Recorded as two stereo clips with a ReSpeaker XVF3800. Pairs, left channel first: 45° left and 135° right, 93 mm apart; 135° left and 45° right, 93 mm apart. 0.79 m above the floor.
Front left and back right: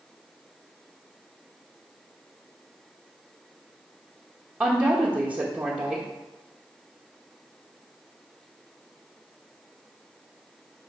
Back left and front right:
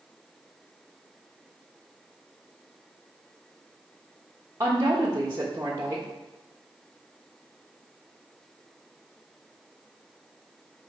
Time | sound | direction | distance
4.6 | a woman speaking | 65° right | 1.1 m